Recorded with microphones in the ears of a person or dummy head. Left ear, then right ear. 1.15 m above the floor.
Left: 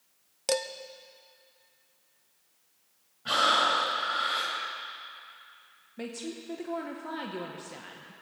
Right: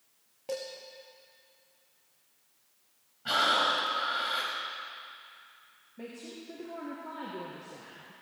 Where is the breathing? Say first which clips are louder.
Left 2 dB; 5° right (ahead or behind), 2 m.